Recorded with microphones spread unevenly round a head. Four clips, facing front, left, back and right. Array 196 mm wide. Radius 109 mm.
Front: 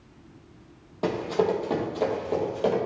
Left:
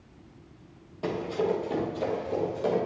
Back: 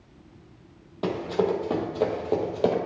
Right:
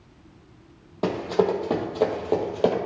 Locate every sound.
1.0 s running footsteps: 75° right, 2.5 m; by 2.8 s 105° right, 2 m